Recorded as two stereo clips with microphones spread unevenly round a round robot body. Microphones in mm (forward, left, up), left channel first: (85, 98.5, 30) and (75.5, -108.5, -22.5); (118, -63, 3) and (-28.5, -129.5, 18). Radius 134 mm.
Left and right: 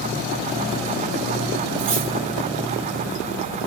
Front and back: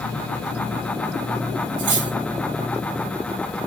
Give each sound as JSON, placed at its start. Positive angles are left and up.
{"t": 1.8, "sound": "cutlery clinking", "azimuth_deg": -160, "distance_m": 6.5}